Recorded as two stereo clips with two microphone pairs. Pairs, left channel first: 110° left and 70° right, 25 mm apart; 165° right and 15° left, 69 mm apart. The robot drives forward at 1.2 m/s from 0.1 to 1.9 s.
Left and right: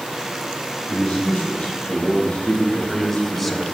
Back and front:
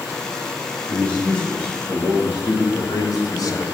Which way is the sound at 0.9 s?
125° left.